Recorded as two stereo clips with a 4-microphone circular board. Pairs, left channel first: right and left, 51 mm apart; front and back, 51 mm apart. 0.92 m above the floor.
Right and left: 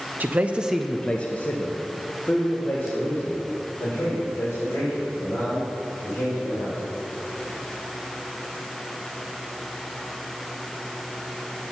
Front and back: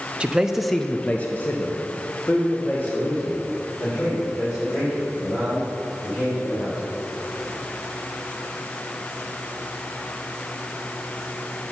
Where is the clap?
I don't hear a clap.